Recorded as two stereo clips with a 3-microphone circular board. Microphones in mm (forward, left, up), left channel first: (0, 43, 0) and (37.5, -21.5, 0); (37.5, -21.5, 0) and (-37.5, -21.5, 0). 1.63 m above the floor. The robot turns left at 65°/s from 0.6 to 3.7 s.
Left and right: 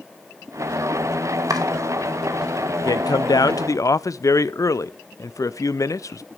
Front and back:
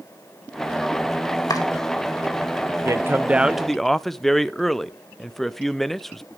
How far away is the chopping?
About 2.5 m.